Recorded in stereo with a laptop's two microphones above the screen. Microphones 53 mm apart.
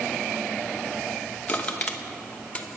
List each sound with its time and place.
1.5 s crushing: 30° left (ahead or behind), 0.8 m